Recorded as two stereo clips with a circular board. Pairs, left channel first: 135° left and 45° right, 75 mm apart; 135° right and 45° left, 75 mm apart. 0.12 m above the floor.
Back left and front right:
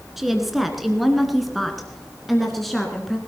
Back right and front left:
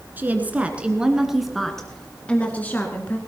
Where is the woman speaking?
40° left, 1.7 m; by 3.2 s 140° right, 1.8 m.